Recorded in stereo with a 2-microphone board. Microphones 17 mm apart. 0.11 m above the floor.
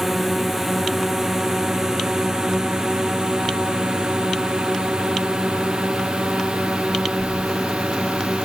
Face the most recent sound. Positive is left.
turn(degrees=-70)  # may be behind; listen again after turning